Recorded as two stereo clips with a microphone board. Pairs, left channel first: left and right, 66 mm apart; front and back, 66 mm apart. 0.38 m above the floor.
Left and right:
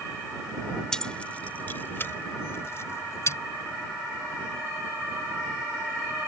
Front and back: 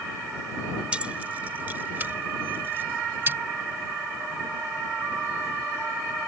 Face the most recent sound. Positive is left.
turn(degrees=130)